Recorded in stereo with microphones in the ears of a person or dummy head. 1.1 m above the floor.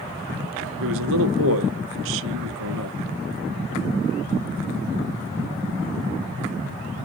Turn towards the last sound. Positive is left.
turn(degrees=-65)  # may be behind; listen again after turning